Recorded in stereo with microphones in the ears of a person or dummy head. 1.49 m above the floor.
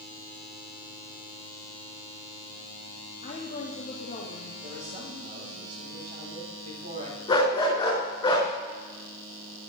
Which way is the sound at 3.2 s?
35° left (ahead or behind).